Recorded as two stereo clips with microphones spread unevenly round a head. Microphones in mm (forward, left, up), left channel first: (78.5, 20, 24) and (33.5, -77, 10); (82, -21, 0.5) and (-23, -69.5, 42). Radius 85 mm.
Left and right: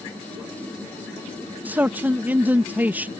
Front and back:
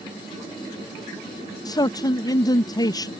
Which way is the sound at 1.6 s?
40° right.